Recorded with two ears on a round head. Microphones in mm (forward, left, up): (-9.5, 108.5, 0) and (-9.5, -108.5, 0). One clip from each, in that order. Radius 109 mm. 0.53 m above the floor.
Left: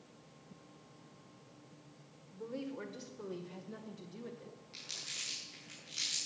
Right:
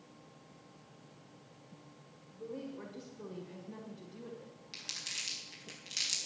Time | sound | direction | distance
2.3 | a woman speaking | 45° left (ahead or behind) | 1.4 m
4.7 | crumpling | 50° right (ahead or behind) | 4 m